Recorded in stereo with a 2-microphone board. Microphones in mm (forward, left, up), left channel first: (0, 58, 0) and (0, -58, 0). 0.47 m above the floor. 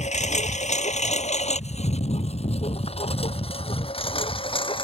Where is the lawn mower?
80° left; by 4.8 s 50° left (ahead or behind).